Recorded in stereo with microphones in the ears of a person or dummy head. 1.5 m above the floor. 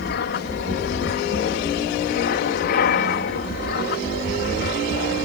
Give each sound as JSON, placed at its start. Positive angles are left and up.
{"t": 0.0, "sound": "an aircraft", "side_deg": 55}